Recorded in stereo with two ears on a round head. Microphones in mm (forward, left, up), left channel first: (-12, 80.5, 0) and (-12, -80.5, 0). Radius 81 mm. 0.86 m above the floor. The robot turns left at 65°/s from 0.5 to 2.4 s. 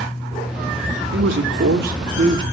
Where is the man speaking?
65° right, 2.5 m; by 2.4 s 150° right, 2.5 m.